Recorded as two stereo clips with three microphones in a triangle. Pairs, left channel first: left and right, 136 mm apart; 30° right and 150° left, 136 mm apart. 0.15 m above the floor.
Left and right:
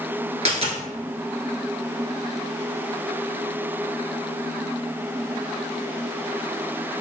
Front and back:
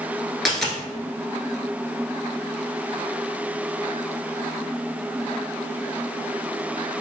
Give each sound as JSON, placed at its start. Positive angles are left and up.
{"t": 0.5, "sound": "a dropped coin", "azimuth_deg": -120, "distance_m": 1.1}